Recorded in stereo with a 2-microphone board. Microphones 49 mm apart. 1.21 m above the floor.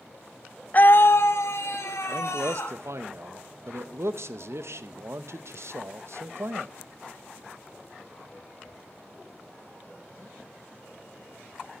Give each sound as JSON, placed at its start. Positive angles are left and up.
{"t": 0.7, "sound": "a scream", "side_deg": 35, "distance_m": 0.6}
{"t": 2.1, "sound": "a man speaking", "side_deg": -65, "distance_m": 0.9}